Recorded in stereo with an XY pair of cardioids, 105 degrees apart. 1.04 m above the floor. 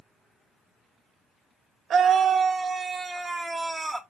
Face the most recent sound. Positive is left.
turn(degrees=-15)